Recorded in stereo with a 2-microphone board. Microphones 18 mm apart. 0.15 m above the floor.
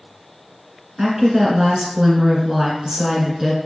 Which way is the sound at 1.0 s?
35° right (ahead or behind).